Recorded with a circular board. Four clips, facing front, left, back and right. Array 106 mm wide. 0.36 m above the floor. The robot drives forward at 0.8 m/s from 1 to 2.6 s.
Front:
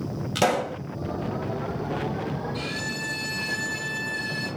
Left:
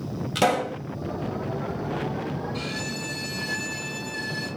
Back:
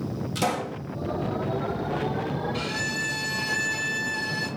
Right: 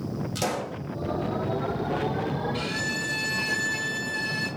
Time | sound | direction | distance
0.3 | a pop | 50° left | 2.0 m
2.5 | a violin | 140° right | 3.5 m